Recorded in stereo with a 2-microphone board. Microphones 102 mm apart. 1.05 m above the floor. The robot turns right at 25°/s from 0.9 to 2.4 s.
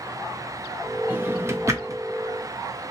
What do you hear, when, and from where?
1.1 s a drawer: 20° right (ahead or behind), 0.6 m; by 2.0 s 35° right (ahead or behind), 0.6 m